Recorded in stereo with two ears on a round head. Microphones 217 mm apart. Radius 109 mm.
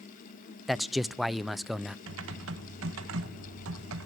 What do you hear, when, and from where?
0.7 s a man speaking: centre (ahead or behind), 0.5 m
2.1 s typing on a keyboard: 60° right (ahead or behind), 1.4 m